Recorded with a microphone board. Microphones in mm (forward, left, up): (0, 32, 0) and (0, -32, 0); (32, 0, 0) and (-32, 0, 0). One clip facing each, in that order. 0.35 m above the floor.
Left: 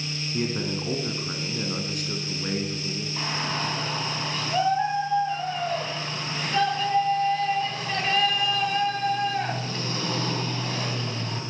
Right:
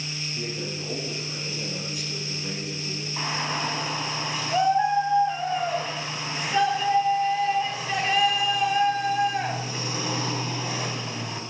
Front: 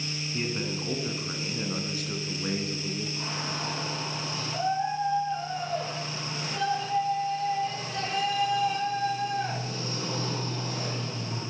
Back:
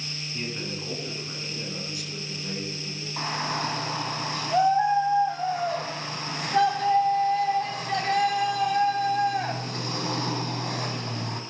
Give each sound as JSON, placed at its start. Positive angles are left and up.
{"t": 0.3, "sound": "a man speaking", "azimuth_deg": 80, "distance_m": 3.0}
{"t": 3.2, "sound": "a shout", "azimuth_deg": -170, "distance_m": 3.0}